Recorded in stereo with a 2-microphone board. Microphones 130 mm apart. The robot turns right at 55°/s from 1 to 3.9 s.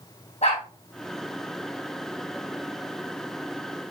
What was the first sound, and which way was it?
A dog barking, 55° left (ahead or behind).